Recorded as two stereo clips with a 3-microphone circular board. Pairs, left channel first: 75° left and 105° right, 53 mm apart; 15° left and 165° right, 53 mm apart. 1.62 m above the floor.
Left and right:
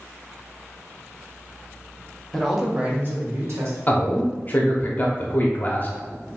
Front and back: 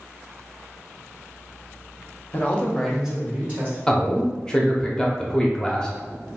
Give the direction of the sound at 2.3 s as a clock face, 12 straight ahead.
12 o'clock.